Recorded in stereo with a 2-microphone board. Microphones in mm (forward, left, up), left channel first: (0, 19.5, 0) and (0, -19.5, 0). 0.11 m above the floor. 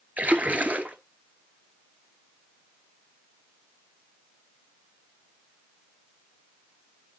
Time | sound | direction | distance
0.2 | a splash | 40° right (ahead or behind) | 0.9 m